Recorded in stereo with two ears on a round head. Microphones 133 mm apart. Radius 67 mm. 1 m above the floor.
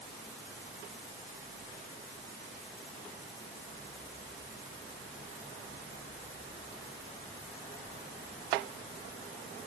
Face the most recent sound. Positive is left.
No sound to turn to.